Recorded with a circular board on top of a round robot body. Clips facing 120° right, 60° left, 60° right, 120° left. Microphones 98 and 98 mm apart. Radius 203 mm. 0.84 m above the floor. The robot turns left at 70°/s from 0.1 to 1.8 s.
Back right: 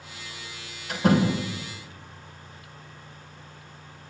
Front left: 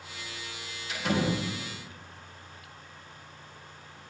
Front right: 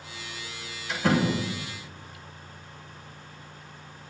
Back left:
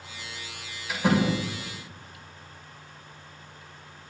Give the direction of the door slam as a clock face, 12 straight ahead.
5 o'clock.